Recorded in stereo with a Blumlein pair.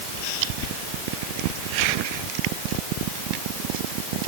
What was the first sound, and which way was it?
Only background noise.